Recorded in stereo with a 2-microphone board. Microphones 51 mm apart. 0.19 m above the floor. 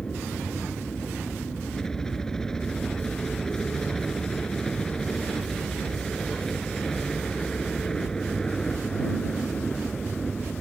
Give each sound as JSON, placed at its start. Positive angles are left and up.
{"t": 0.0, "sound": "a helicopter", "side_deg": 10}